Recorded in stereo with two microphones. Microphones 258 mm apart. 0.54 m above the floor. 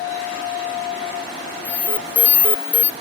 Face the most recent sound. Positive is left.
turn(degrees=5)  # may be behind; listen again after turning